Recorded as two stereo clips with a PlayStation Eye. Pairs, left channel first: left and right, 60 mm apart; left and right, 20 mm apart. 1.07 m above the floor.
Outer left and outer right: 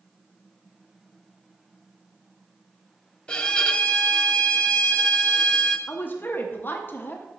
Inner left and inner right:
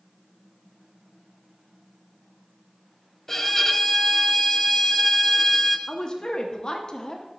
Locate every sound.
3.3 s a violin: 15° left (ahead or behind), 0.5 m
5.9 s a woman speaking: 35° left (ahead or behind), 0.7 m